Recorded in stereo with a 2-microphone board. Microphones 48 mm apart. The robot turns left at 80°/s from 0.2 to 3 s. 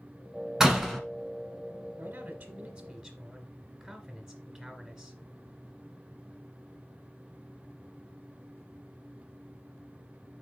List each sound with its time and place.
0.6 s a door slam: 10° right (ahead or behind), 1.2 m; by 1.0 s 5° left (ahead or behind), 1.2 m
2.0 s a man speaking: 80° right, 1.7 m; by 5.2 s 160° right, 1.7 m